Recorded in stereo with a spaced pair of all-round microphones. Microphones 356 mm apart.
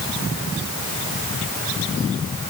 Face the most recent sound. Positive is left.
No sound to turn to.